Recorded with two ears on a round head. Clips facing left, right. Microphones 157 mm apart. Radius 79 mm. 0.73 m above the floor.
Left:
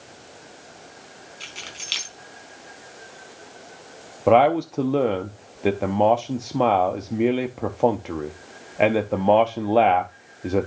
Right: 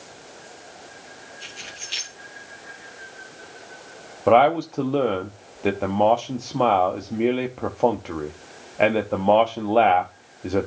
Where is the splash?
I don't hear a splash.